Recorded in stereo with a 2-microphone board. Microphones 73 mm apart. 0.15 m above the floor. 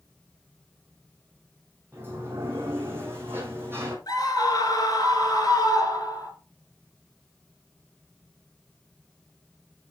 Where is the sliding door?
30° right (ahead or behind), 2.5 m.